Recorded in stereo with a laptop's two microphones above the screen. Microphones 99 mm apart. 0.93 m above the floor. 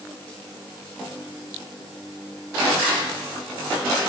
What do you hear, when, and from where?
Only background noise.